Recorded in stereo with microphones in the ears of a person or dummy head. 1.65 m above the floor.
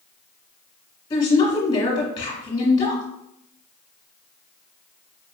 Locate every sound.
1.1 s a woman speaking: 25° left (ahead or behind), 1.7 m